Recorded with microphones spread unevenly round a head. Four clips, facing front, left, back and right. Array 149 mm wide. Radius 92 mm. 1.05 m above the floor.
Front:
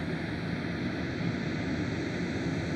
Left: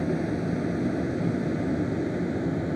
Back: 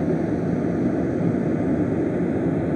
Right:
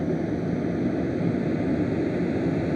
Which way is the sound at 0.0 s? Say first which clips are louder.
Right 1 dB, back 13 dB; 165° right.